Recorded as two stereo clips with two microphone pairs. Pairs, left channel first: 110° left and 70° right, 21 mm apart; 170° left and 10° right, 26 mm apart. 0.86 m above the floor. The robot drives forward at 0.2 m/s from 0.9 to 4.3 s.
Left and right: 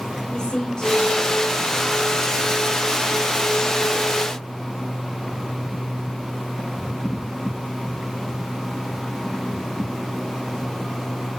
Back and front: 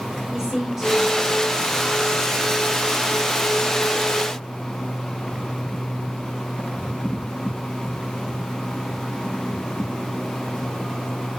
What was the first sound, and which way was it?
A woman speaking, 80° left.